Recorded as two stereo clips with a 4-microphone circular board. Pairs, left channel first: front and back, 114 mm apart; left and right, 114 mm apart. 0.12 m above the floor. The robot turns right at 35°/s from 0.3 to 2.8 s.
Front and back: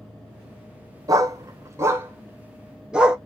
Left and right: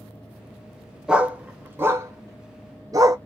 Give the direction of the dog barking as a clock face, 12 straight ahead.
5 o'clock.